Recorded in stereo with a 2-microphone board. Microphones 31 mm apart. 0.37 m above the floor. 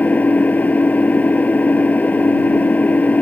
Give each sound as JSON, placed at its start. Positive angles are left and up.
{"t": 0.0, "sound": "an engine running", "side_deg": 60}